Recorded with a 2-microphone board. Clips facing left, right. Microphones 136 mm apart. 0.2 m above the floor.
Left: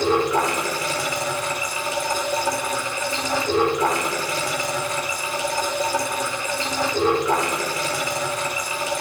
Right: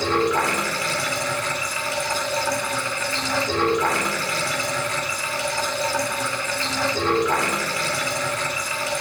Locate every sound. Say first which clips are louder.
0.0 s running water: left 1 dB; 20° left (ahead or behind), 4.5 m